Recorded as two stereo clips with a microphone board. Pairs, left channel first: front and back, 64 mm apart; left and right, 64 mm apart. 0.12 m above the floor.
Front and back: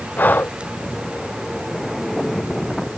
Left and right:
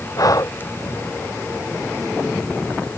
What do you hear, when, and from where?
0.2 s breathing: 60° left